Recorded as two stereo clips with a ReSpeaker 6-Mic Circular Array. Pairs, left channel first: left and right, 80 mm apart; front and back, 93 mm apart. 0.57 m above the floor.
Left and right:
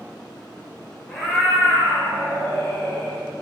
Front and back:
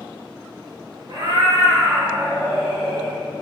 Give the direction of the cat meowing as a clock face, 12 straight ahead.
6 o'clock.